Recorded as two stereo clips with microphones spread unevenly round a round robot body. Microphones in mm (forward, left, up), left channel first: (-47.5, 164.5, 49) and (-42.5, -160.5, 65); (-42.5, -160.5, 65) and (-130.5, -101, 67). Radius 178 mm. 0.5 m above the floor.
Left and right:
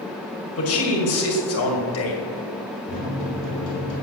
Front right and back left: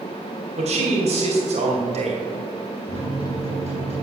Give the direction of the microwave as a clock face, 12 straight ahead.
8 o'clock.